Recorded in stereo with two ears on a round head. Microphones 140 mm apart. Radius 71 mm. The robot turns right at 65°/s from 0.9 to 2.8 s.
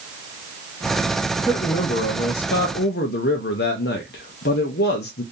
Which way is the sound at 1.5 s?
20° left.